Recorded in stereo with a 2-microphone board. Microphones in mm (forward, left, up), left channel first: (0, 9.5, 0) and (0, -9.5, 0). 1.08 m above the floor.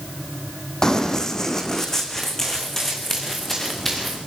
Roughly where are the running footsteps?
Left.